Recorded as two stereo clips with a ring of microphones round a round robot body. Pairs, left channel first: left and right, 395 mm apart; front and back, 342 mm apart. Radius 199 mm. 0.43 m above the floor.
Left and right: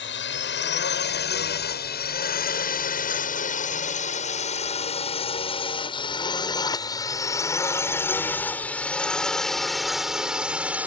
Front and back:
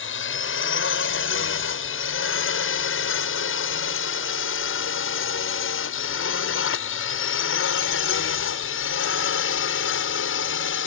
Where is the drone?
40° left; by 10.9 s 5° right.